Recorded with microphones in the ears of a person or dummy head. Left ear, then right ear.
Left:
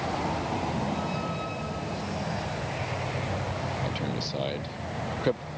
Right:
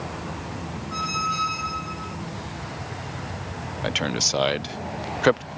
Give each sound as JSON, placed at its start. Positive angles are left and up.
{"t": 0.9, "sound": "a squeak", "side_deg": -75}
{"t": 3.8, "sound": "a man speaking", "side_deg": -50}